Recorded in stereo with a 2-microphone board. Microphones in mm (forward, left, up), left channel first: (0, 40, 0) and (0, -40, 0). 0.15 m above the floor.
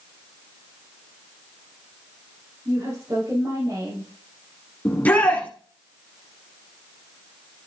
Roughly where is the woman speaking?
Right.